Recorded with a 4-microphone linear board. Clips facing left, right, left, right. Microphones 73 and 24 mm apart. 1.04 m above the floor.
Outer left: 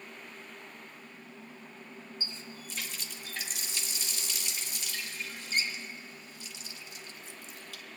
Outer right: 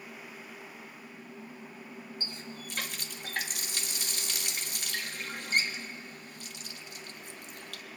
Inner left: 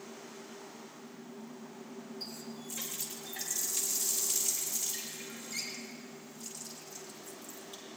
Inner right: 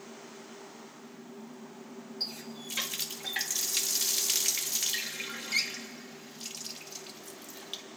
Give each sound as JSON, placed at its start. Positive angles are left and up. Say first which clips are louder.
{"t": 2.2, "sound": "a running tap", "louder": "outer right 2 dB, inner right 10 dB", "side_deg": -55, "distance_m": 1.1}